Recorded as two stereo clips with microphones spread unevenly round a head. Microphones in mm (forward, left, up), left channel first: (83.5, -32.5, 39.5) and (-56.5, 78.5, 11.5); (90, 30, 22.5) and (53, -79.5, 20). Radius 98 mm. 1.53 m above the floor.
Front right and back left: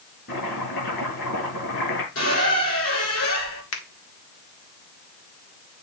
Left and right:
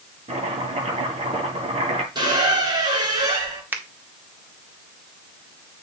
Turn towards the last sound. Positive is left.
turn(degrees=-35)